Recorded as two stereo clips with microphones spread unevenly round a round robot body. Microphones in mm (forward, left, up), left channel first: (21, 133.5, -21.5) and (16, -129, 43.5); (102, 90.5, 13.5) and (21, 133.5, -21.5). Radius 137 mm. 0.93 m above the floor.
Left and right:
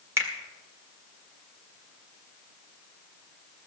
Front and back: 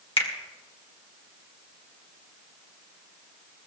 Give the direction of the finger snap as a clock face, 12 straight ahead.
12 o'clock.